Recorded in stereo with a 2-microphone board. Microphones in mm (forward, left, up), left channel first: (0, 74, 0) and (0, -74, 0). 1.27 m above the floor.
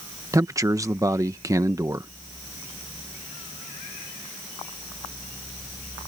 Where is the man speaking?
20° right (ahead or behind).